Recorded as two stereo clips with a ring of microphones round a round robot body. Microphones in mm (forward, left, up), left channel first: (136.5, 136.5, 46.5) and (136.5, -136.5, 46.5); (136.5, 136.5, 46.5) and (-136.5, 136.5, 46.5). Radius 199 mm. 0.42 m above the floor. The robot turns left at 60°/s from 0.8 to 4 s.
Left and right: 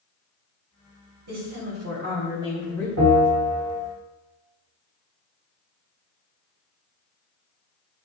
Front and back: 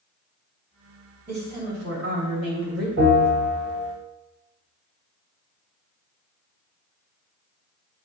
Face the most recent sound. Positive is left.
turn(degrees=165)